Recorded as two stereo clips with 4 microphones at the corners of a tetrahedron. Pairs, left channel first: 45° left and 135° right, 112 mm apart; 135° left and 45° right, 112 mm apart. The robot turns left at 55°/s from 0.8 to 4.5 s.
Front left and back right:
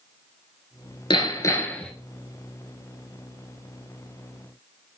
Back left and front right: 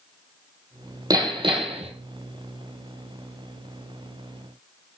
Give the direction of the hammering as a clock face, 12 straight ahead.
12 o'clock.